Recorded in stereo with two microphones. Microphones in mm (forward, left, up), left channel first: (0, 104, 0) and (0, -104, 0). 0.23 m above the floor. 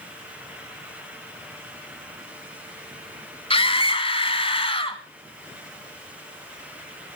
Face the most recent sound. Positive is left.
turn(degrees=25)  # may be behind; listen again after turning